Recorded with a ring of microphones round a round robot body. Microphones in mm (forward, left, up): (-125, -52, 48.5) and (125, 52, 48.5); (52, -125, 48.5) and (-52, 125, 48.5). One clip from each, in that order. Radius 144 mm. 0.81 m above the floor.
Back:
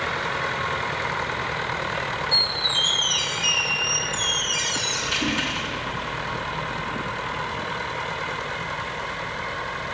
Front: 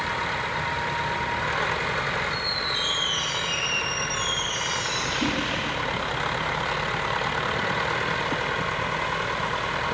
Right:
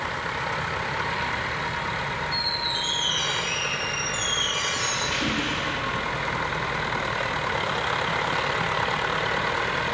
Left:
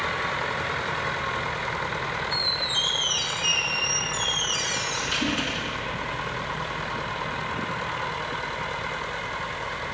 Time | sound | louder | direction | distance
2.3 | a squeak | back 5 dB, left 2 dB | 160° left | 1.9 m